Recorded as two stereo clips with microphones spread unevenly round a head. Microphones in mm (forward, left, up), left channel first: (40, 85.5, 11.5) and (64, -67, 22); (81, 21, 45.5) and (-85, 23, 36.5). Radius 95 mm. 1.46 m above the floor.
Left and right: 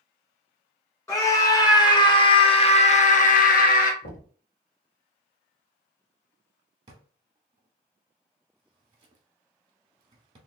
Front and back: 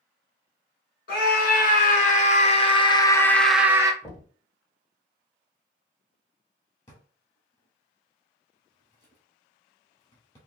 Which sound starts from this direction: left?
Knocking, at 4.0 s.